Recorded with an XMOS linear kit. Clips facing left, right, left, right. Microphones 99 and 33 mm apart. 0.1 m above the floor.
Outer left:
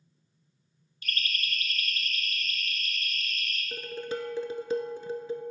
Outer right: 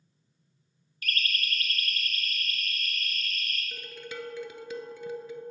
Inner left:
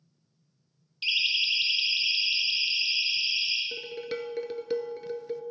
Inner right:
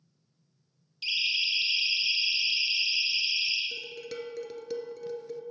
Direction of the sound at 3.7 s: 35° left (ahead or behind).